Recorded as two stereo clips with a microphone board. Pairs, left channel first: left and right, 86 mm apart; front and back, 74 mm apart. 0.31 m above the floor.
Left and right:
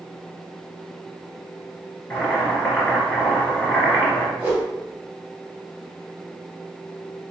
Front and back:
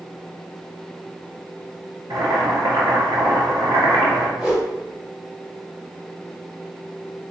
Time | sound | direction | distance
2.1 | boiling | 165° left | 1.9 m
4.4 | a whoosh | 100° right | 1.6 m